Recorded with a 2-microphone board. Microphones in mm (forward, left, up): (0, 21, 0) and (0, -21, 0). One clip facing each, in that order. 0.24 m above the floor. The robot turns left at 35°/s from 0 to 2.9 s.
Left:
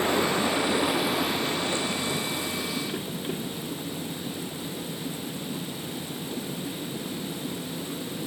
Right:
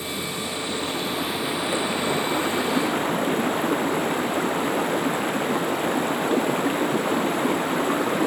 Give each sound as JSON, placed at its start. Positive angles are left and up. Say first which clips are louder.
{"t": 0.0, "sound": "running water", "louder": "left 6 dB", "azimuth_deg": 45}